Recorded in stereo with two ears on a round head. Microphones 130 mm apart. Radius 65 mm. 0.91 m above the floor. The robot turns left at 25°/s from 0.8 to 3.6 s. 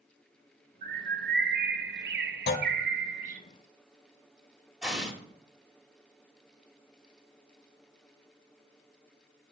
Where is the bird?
60° right, 0.8 m; by 3.4 s 125° right, 0.8 m.